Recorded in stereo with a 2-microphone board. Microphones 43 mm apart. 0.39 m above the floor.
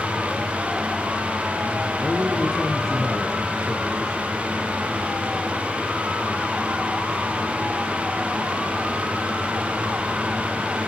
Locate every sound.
2.0 s a man speaking: 15° left (ahead or behind), 5 m; by 4.4 s 10° left (ahead or behind), 6 m